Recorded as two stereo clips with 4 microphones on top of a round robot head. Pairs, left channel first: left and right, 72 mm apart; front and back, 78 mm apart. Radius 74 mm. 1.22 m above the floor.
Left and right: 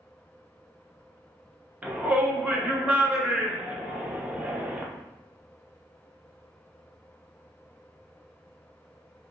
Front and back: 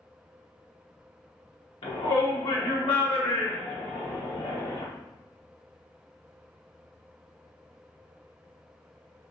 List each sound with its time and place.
1.8 s a shout: 20° right, 0.9 m